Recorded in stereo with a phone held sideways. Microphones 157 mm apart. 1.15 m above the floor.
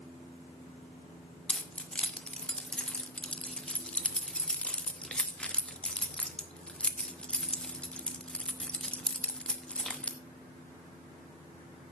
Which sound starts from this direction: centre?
Keys jangling, at 1.5 s.